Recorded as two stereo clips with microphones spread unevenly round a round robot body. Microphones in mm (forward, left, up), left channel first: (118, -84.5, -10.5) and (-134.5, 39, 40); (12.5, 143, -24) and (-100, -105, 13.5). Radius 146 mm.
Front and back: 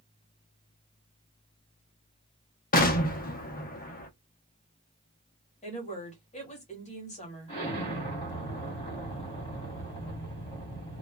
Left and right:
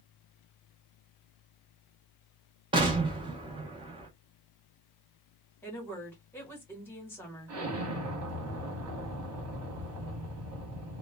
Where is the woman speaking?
Straight ahead, 1.2 m.